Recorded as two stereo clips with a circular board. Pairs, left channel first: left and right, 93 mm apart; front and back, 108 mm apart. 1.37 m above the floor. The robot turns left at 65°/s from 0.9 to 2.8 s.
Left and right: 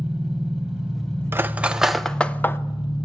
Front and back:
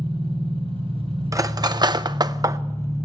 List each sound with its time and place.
0.0 s an engine running: 175° right, 2.5 m; by 3.0 s 65° left, 2.5 m
1.3 s cutlery clinking: 140° right, 0.6 m; by 2.6 s 140° left, 0.6 m